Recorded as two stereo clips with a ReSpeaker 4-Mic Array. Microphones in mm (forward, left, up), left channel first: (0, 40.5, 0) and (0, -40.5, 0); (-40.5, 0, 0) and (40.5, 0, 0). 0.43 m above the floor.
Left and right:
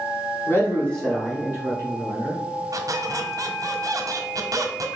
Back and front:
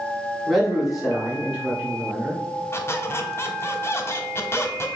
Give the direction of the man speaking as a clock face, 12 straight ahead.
9 o'clock.